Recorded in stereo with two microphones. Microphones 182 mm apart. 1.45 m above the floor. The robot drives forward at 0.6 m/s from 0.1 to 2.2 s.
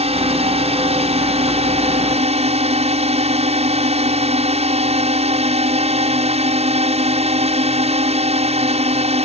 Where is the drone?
35° right (ahead or behind).